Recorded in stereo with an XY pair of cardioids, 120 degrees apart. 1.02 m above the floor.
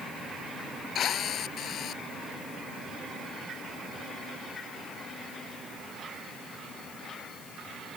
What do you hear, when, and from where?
0.9 s a drill: 55° left